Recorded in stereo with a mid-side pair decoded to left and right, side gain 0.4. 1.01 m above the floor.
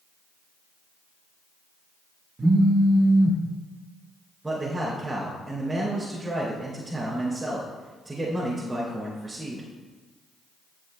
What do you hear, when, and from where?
2.4 s a phone buzzing: 35° right, 1.4 m
4.4 s a man speaking: 20° right, 3.5 m